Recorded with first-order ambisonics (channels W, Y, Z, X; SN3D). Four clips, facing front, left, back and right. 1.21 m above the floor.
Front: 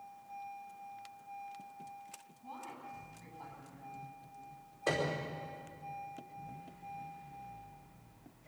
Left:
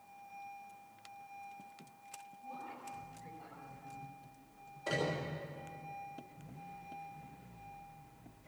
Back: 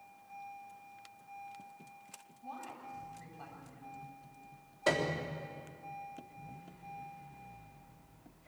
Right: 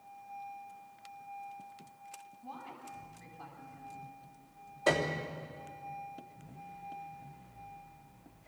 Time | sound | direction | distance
2.4 | a woman speaking | 165° right | 9 m
4.9 | a piano | 140° right | 3 m